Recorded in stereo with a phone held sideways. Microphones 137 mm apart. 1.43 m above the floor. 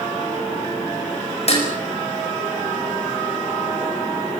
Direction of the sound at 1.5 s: 45° left (ahead or behind).